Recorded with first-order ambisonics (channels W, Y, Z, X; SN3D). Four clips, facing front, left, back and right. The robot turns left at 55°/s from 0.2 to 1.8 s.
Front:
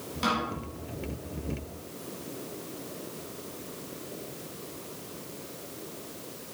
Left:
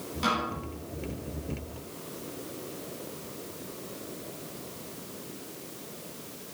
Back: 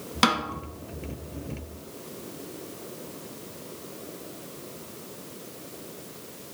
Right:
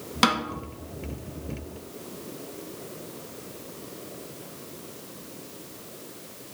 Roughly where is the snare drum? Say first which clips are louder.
Right 5 dB, back 5 dB; behind right.